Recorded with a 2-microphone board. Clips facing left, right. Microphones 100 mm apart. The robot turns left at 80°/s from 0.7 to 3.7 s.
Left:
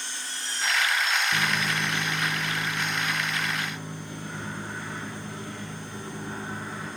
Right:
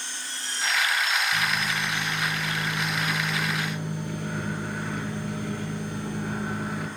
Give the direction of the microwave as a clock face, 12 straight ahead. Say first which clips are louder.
Even; 9 o'clock.